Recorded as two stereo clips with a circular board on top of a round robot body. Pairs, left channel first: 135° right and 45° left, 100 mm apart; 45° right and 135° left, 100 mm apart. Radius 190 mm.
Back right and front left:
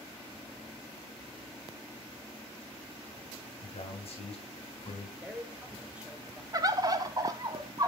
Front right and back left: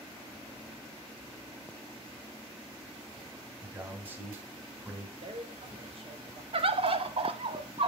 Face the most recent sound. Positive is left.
turn(degrees=100)